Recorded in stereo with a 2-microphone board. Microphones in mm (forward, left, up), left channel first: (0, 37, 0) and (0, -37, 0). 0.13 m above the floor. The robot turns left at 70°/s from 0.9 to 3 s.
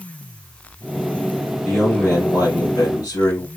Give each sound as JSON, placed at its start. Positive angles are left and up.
{"t": 1.6, "sound": "a man speaking", "azimuth_deg": -175, "distance_m": 3.5}